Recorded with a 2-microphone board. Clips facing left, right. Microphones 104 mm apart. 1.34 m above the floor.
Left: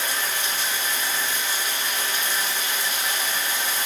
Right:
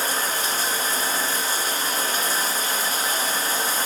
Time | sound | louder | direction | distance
0.0 | running water | right 3 dB | 35° right (ahead or behind) | 1.7 m